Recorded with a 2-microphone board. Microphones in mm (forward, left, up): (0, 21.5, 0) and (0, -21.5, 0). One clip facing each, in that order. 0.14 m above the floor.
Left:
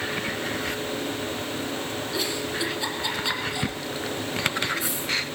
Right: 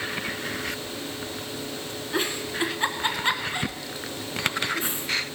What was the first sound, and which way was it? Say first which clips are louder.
A giggle: right 3 dB; 40° right (ahead or behind).